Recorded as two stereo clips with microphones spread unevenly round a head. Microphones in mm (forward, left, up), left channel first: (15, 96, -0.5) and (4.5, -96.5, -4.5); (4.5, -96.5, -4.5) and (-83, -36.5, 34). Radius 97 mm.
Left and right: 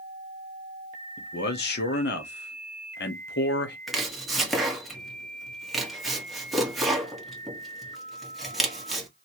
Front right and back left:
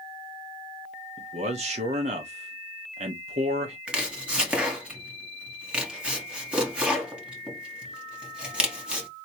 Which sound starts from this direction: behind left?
A man speaking, at 1.2 s.